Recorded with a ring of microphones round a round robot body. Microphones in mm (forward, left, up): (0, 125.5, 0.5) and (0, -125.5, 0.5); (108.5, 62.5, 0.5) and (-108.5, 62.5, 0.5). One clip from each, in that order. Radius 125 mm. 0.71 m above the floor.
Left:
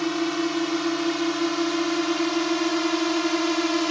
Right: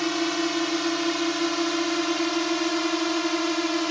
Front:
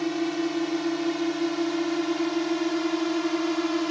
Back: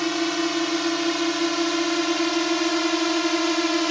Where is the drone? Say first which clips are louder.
Even, back 4 dB; 145° right; by 3.9 s 170° right.